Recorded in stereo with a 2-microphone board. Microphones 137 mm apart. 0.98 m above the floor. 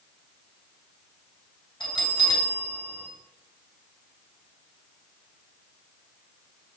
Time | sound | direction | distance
1.8 | a bell | 35° left (ahead or behind) | 3 m